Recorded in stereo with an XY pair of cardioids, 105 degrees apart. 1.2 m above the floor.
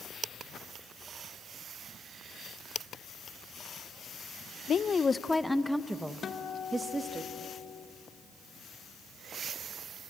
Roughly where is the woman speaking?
Ahead left.